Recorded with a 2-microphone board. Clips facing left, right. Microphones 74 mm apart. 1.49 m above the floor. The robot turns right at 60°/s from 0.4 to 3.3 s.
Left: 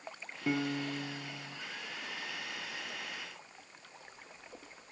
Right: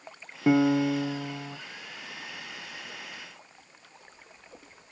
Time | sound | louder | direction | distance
0.5 | a piano | right 12 dB | 140° right | 0.5 m